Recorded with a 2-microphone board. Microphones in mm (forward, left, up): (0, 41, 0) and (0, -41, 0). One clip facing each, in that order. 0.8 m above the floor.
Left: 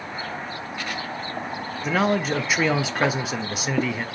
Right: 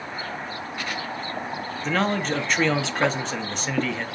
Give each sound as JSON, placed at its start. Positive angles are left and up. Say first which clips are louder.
{"t": 1.8, "sound": "a man speaking", "louder": "left 2 dB", "side_deg": 5, "distance_m": 0.6}